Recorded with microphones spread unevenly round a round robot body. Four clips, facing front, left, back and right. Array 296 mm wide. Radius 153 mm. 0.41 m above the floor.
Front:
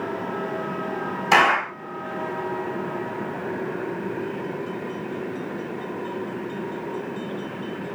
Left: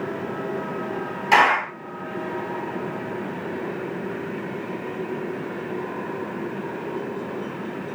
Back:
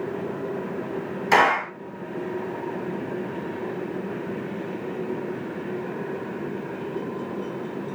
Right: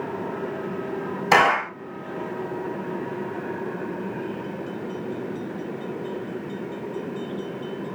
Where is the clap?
105° right, 2 m.